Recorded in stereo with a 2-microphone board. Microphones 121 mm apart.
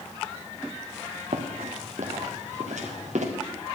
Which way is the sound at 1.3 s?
85° right.